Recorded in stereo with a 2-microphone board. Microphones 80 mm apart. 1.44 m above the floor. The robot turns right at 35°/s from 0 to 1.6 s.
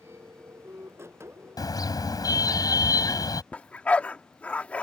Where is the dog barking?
15° left (ahead or behind).